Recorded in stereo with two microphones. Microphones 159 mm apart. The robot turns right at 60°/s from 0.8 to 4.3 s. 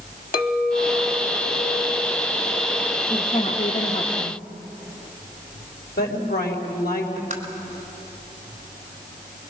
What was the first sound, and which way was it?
A clink, 60° left.